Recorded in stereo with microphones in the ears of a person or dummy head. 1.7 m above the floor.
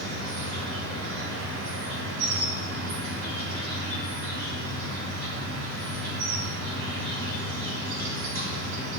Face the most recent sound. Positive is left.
turn(degrees=-65)  # may be behind; listen again after turning